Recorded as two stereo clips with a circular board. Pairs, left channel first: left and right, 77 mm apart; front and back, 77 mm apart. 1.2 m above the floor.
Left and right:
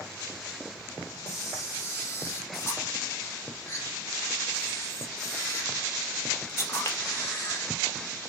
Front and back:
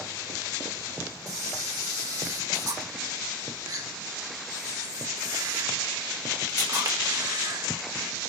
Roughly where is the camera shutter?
Behind left.